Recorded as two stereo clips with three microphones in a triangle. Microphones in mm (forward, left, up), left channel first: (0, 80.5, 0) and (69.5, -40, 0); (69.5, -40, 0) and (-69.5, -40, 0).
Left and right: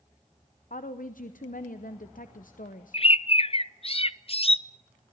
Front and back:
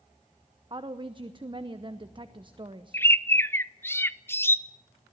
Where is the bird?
70° left, 0.5 m.